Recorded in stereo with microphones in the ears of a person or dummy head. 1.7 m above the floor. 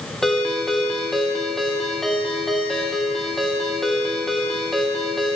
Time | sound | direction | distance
0.2 | a ringtone | centre (ahead or behind) | 1.2 m